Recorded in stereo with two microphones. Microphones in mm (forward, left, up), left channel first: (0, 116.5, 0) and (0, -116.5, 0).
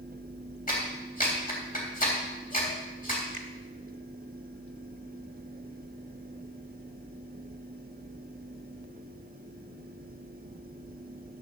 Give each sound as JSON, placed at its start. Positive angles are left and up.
{"t": 0.7, "sound": "a clap", "side_deg": 40, "distance_m": 3.0}
{"t": 3.3, "sound": "a finger snap", "side_deg": -45, "distance_m": 1.3}